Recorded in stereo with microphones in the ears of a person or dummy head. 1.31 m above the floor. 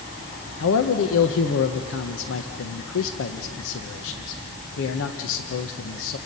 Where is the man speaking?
75° left (ahead or behind), 0.9 m.